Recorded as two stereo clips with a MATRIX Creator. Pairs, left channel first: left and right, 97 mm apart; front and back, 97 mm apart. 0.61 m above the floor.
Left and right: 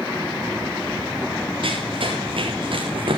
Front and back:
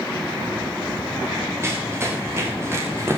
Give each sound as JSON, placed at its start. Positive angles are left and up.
{"t": 1.6, "sound": "running footsteps", "azimuth_deg": -115, "distance_m": 9.5}